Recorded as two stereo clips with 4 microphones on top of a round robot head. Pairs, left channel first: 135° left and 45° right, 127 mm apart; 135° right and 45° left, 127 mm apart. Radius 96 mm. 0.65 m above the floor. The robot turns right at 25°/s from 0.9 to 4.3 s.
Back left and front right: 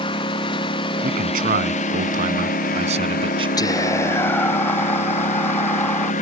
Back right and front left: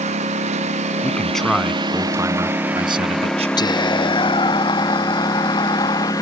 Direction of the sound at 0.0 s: 80° left.